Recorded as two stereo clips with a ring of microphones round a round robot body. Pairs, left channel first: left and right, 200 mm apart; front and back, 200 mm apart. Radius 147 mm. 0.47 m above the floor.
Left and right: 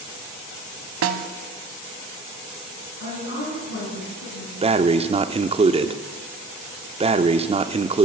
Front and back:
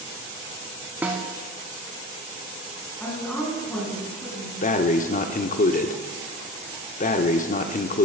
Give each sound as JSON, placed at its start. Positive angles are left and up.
{"t": 1.0, "sound": "a snare drum", "azimuth_deg": -95, "distance_m": 0.7}
{"t": 3.0, "sound": "a woman speaking", "azimuth_deg": 85, "distance_m": 4.0}
{"t": 4.6, "sound": "breathing", "azimuth_deg": -35, "distance_m": 0.6}